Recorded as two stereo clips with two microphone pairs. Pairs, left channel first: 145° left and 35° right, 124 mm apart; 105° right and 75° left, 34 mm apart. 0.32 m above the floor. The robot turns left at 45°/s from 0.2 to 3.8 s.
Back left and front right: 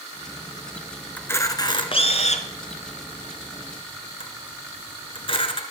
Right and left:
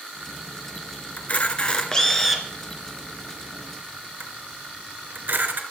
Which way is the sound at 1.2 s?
140° right.